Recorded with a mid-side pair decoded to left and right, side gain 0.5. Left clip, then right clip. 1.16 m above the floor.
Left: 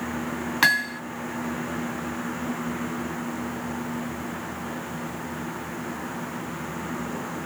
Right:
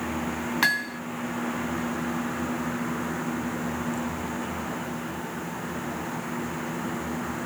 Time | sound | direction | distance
0.6 | hammering | 25° left | ?